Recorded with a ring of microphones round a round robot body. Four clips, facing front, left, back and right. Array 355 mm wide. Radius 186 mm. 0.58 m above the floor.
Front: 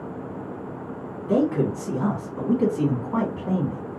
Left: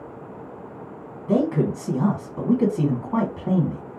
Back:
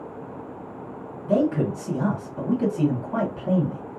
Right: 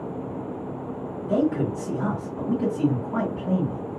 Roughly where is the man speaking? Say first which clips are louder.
Left 2 dB, even; left.